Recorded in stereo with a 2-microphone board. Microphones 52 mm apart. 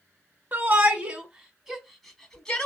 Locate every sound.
0.5 s a shout: 35° right (ahead or behind), 1.3 m; by 2.7 s 20° left (ahead or behind), 1.3 m